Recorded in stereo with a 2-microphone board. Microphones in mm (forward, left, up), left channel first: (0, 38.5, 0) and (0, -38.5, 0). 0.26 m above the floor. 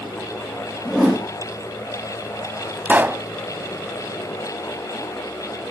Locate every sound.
0.8 s a whoosh: 5° right (ahead or behind), 5.5 m
2.9 s a pop: 25° right (ahead or behind), 0.6 m